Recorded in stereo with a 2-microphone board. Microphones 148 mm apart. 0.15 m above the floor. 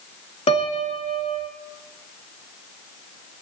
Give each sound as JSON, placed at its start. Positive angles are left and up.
{"t": 0.5, "sound": "a piano", "side_deg": 45, "distance_m": 0.8}